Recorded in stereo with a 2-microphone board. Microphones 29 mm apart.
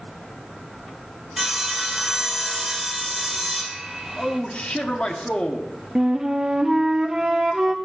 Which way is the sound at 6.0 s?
20° right (ahead or behind).